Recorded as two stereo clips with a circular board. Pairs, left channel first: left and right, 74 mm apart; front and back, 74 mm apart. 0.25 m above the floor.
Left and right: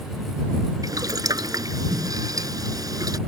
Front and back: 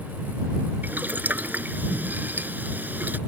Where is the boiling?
115° right.